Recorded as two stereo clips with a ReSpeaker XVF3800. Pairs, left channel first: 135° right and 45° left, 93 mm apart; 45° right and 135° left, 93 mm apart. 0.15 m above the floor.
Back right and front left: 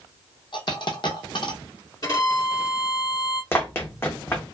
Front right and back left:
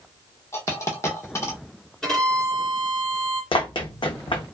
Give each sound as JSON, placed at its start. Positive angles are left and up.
{"t": 0.5, "sound": "a dropped coin", "azimuth_deg": -105, "distance_m": 1.0}
{"t": 2.0, "sound": "a violin", "azimuth_deg": -125, "distance_m": 1.8}
{"t": 3.5, "sound": "running footsteps", "azimuth_deg": -70, "distance_m": 0.7}